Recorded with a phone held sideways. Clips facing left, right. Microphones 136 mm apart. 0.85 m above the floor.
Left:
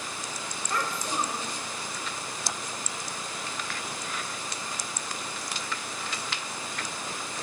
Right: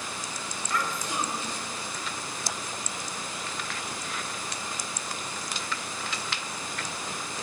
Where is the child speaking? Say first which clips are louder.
Even; 35° left (ahead or behind), 3.5 m.